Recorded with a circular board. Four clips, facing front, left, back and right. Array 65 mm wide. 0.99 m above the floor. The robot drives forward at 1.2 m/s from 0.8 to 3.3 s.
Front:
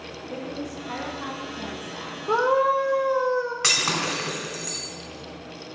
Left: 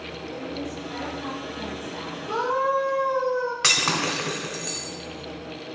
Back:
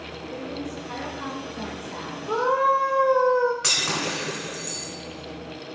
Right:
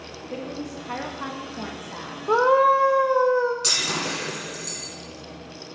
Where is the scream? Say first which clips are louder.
Right 7 dB, front 1 dB; 65° right, 0.8 m; by 3.5 s 140° right, 1.1 m.